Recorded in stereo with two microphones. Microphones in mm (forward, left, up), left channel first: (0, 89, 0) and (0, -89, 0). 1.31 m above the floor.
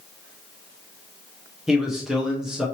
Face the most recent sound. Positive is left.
turn(degrees=0)  # may be behind; listen again after turning